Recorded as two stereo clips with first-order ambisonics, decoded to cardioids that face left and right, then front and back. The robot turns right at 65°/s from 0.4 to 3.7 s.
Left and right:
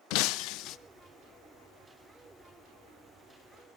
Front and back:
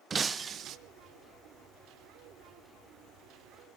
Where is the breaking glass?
110° left, 0.6 m; by 0.8 s 135° left, 0.6 m.